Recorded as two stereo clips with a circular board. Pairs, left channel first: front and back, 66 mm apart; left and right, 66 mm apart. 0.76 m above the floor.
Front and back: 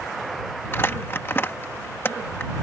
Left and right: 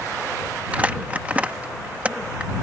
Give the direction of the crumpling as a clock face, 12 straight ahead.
1 o'clock.